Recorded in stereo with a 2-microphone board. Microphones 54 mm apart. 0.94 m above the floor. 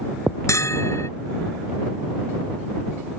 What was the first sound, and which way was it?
A bell, 60° left (ahead or behind).